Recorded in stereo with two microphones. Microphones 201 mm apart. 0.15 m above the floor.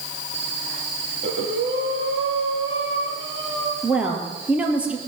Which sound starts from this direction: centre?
A woman speaking, at 3.8 s.